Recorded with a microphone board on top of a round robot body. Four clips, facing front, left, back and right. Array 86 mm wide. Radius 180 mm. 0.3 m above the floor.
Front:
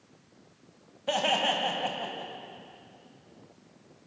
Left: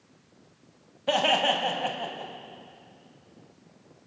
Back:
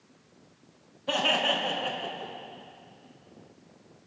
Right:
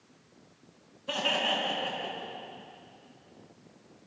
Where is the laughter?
75° left, 3 m; by 2.3 s 60° left, 3.5 m.